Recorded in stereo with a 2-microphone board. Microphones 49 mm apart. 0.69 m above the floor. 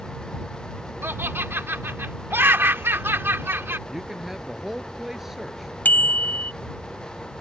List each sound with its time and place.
1.0 s laughter: 50° right (ahead or behind)
3.9 s a man speaking: 10° right (ahead or behind)
5.8 s a bicycle bell: 40° left (ahead or behind)